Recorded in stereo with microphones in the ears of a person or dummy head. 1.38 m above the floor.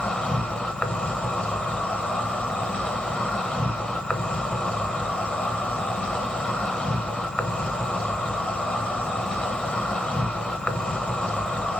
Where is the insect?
10° left (ahead or behind), 1.2 m.